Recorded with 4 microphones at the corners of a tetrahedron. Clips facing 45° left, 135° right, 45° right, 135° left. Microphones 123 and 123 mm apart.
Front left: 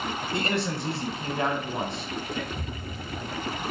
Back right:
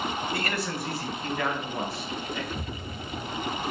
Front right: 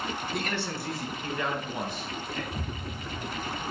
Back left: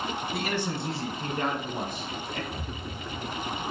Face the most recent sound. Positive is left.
turn(degrees=-55)